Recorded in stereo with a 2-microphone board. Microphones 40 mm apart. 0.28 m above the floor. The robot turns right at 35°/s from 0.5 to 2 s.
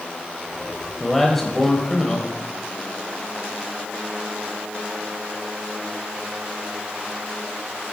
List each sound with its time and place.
1.0 s a man speaking: centre (ahead or behind), 0.9 m; by 2.3 s 15° left (ahead or behind), 0.9 m